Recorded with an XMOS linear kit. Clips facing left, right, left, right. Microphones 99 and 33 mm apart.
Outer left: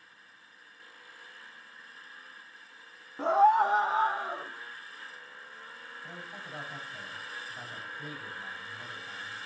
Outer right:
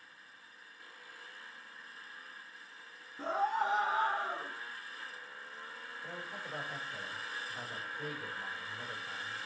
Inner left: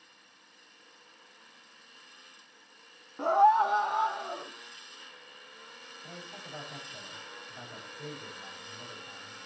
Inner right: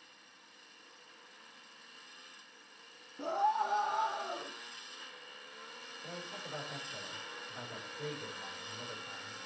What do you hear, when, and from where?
3.2 s a scream: 70° left (ahead or behind), 0.8 m; by 4.5 s 5° left (ahead or behind), 1.8 m
6.0 s a man speaking: 70° right (ahead or behind), 5 m